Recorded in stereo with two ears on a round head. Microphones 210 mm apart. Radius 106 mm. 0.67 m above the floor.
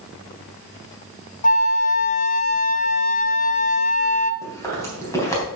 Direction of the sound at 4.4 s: 10° left (ahead or behind).